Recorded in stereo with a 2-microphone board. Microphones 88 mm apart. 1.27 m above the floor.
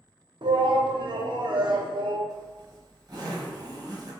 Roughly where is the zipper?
Right.